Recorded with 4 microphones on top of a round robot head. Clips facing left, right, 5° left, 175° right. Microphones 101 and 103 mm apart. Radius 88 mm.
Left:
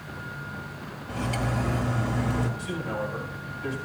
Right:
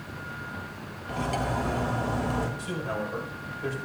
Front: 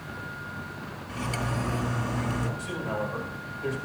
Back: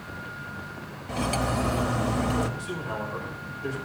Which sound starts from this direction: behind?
Cutlery clinking, at 1.1 s.